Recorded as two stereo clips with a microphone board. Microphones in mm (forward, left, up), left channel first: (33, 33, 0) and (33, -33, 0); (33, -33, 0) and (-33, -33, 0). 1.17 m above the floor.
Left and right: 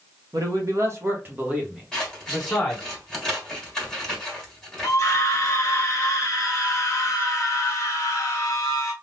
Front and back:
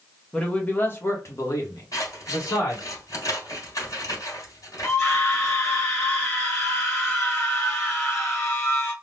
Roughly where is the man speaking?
Right.